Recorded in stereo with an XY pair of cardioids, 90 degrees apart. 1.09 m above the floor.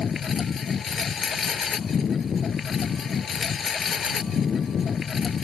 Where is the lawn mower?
50° left.